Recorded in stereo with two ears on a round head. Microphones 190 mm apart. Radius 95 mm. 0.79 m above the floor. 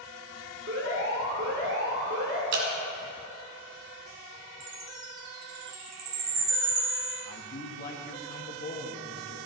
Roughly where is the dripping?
Right.